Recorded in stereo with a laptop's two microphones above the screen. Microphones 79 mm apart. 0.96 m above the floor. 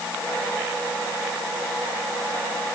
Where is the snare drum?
I don't hear a snare drum.